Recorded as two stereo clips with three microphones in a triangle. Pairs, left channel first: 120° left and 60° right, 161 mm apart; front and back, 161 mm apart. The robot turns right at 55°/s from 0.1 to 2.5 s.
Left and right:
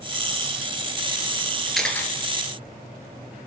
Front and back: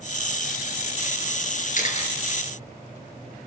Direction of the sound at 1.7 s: 25° left.